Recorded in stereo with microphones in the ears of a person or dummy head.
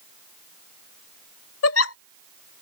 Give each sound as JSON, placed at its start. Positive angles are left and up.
{"t": 1.6, "sound": "a giggle", "side_deg": 80}